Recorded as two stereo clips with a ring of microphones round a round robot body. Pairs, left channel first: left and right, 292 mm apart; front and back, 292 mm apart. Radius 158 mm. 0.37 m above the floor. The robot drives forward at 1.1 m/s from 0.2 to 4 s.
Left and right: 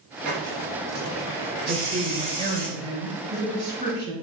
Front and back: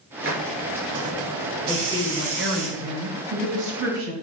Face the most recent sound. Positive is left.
turn(degrees=-170)